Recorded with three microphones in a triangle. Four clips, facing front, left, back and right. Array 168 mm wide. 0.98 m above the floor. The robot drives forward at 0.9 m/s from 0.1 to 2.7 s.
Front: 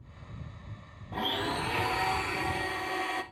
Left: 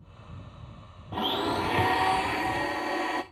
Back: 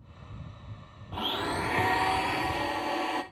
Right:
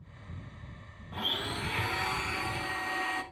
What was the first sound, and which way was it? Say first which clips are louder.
A blender: left 9 dB, even; 75° left.